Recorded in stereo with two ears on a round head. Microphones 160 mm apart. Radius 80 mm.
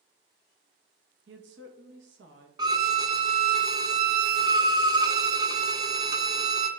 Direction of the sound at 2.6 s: 25° right (ahead or behind).